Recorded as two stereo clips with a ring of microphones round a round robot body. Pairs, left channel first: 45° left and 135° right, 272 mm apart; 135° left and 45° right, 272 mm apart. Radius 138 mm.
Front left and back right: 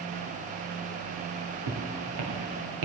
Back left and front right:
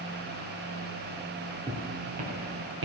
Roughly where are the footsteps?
Behind right.